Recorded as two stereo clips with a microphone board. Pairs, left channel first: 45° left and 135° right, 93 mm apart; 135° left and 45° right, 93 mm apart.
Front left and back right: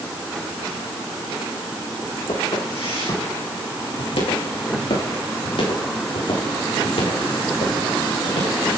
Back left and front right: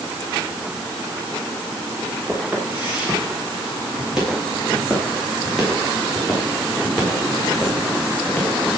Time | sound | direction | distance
2.3 | footsteps | 30° left | 10 m